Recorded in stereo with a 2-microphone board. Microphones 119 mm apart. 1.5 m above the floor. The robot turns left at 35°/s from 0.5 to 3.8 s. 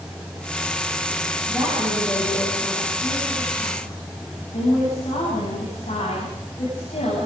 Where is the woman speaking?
170° right, 9.5 m; by 7.3 s 110° left, 9.5 m.